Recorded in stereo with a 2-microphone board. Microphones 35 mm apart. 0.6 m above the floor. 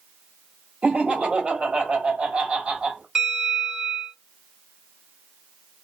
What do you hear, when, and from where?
0.8 s laughter: 35° right (ahead or behind), 1.0 m
3.1 s a bell: 20° right (ahead or behind), 2 m